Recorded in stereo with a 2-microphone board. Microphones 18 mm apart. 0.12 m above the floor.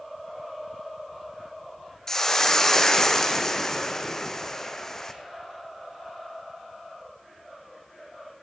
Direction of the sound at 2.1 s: 25° left (ahead or behind).